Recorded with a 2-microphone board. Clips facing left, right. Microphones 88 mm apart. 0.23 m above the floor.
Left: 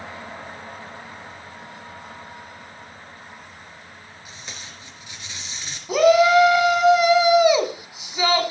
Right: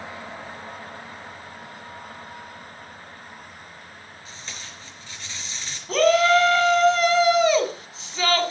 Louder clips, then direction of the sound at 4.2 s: Left 1 dB; 15° left (ahead or behind).